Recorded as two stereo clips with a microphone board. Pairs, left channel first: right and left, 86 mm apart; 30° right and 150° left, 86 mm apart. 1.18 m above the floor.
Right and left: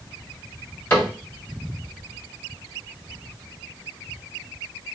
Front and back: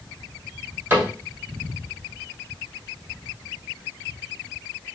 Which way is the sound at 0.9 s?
150° right.